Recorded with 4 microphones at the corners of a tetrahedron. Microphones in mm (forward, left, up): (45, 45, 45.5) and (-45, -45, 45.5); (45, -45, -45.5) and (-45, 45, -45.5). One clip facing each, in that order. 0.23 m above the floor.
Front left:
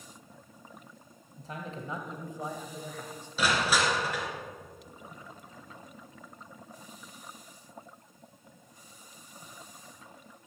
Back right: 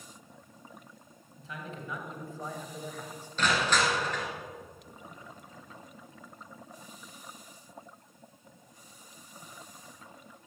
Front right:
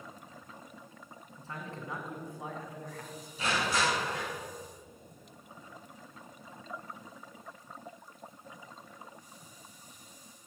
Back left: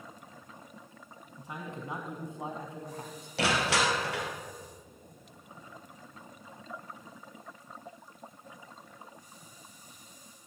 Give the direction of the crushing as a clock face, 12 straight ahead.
8 o'clock.